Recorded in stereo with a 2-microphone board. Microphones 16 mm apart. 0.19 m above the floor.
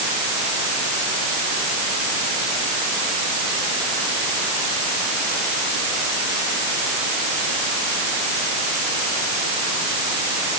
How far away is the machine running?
No machine running in this recording.